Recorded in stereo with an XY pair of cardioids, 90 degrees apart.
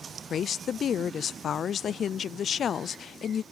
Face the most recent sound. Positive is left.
turn(degrees=60)